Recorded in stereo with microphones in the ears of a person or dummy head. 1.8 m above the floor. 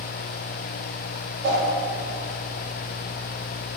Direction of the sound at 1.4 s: 55° right (ahead or behind).